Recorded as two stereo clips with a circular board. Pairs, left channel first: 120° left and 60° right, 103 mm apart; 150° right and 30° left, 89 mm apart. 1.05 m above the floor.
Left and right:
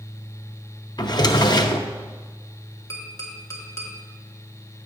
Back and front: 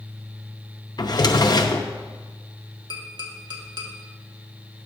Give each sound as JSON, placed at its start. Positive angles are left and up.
{"t": 1.0, "sound": "a drawer", "azimuth_deg": 170, "distance_m": 0.6}
{"t": 2.9, "sound": "tapping", "azimuth_deg": 60, "distance_m": 1.5}